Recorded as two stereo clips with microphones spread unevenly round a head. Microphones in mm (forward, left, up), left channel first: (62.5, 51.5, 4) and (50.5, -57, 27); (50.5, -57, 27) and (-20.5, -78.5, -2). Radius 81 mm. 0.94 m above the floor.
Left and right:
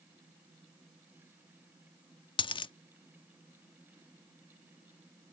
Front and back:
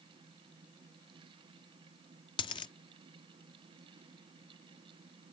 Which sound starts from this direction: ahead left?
A dropped coin, at 2.4 s.